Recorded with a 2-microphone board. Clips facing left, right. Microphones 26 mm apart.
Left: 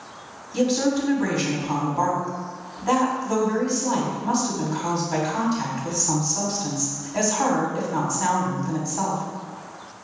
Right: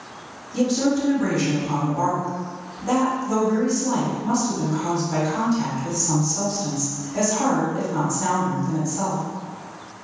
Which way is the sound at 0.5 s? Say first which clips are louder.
Right 1 dB; 25° left (ahead or behind).